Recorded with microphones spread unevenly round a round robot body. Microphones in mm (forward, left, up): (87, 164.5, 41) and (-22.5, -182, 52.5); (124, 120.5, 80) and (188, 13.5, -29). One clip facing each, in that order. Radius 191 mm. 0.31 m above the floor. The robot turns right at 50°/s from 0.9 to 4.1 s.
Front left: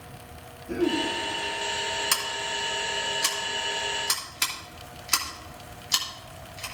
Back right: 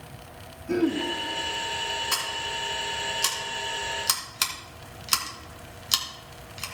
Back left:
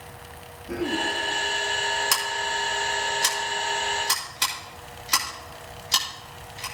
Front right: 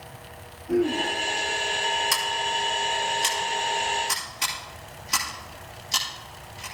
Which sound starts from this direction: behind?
Throat clearing, at 0.7 s.